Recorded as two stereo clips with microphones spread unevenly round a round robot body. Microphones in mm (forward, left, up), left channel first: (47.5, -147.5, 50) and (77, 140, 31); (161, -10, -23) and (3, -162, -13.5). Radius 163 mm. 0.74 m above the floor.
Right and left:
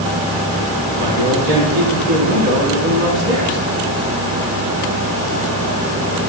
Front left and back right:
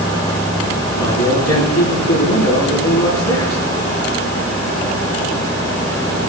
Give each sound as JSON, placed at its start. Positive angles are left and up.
{"t": 1.0, "sound": "a man speaking", "azimuth_deg": 90, "distance_m": 7.0}